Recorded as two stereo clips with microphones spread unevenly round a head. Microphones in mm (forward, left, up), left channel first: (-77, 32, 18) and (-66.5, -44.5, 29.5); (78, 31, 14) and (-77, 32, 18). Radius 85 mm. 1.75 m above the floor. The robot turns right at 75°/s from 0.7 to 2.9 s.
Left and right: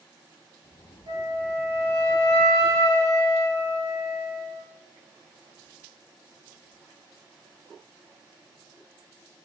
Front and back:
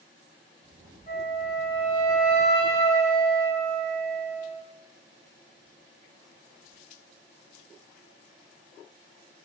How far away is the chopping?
I don't hear chopping.